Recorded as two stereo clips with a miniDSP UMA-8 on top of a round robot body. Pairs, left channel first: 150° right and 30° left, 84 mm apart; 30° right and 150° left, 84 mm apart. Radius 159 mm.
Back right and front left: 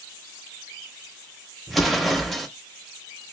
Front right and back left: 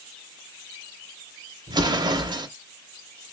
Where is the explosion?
120° left, 0.7 m.